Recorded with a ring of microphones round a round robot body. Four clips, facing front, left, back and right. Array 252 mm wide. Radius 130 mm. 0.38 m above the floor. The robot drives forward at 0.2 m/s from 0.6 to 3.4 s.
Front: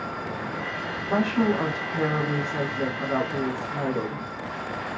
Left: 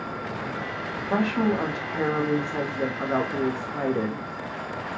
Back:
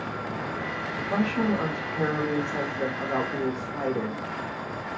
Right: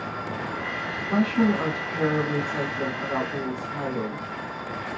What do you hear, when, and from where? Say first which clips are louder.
1.1 s a woman speaking: right 1 dB, front 3 dB; 50° left, 1.2 m; by 4.2 s 95° left, 1.1 m